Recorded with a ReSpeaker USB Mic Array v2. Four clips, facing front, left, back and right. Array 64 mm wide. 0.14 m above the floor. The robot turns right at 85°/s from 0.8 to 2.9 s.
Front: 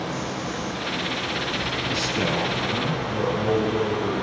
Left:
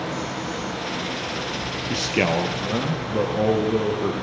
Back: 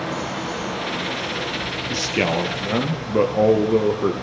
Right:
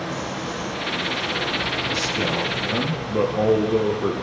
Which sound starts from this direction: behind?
Running water, at 0.0 s.